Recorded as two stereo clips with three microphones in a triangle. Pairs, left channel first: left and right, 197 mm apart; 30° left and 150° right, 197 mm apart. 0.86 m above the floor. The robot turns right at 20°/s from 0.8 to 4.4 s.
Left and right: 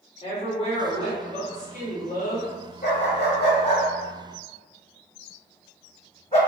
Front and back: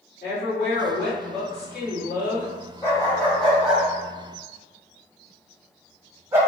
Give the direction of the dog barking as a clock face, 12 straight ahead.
9 o'clock.